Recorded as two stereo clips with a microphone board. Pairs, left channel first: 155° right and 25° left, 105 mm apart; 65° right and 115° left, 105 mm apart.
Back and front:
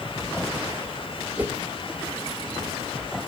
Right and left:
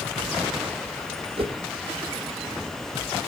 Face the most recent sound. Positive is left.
turn(degrees=95)